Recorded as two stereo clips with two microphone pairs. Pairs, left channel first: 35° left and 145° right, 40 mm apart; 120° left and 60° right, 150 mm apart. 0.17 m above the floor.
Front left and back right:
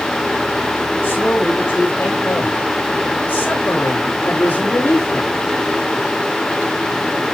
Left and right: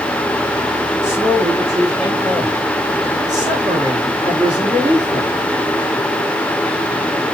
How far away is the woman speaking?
About 7 m.